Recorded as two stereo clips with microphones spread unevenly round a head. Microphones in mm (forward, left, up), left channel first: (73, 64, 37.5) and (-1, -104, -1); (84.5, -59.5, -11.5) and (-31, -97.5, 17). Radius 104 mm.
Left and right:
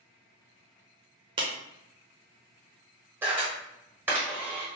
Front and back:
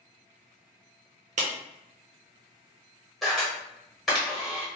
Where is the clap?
175° left, 0.5 m.